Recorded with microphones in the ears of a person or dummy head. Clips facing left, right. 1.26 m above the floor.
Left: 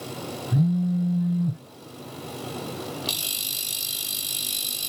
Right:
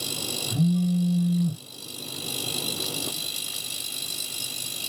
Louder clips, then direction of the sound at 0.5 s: Even; 15° left (ahead or behind).